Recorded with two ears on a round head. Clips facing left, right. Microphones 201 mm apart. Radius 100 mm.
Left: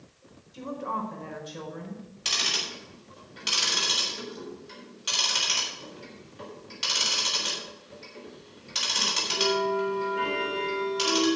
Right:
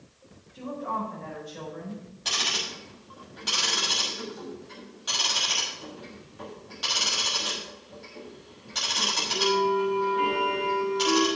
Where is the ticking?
40° left (ahead or behind), 6 m.